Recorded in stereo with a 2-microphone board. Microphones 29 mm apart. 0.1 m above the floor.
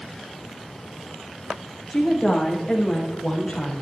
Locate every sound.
1.9 s a woman speaking: 5° right (ahead or behind), 4.5 m; by 3.8 s 20° left (ahead or behind), 6.5 m